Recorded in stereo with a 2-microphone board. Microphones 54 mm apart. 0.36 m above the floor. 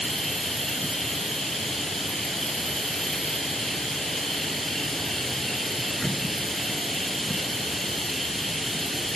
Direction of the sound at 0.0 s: Centre (ahead or behind).